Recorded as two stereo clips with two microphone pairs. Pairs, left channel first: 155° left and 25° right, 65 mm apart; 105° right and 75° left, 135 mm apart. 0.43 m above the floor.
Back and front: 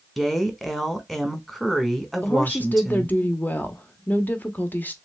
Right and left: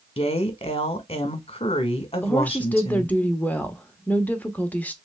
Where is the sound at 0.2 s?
115° right, 1.2 m.